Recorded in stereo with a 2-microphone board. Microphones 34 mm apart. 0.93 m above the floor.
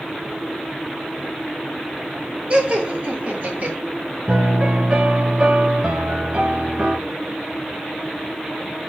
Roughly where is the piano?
Right.